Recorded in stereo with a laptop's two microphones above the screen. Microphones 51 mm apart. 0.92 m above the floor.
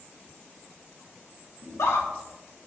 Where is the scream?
70° left (ahead or behind), 2 m.